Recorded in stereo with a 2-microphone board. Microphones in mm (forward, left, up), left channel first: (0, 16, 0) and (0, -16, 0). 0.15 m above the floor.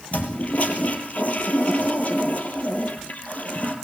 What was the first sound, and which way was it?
A toilet flushing, 50° left (ahead or behind).